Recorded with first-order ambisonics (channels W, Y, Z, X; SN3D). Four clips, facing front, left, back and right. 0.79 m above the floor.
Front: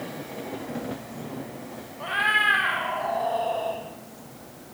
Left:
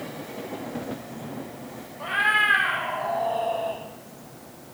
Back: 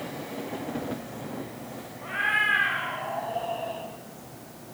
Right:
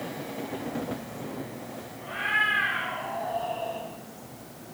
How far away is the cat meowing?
About 5.5 m.